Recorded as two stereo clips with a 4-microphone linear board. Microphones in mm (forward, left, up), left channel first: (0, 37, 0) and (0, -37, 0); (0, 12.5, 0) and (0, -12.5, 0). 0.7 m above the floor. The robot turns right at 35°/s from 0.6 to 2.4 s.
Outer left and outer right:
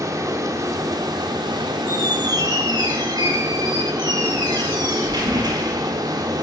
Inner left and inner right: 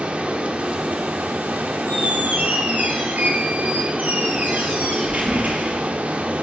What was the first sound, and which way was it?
Running water, 130° right.